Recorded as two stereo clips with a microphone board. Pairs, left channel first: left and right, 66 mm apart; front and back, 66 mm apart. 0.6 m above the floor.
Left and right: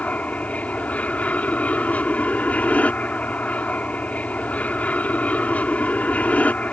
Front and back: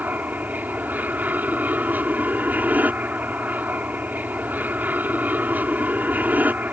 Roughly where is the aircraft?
Behind left.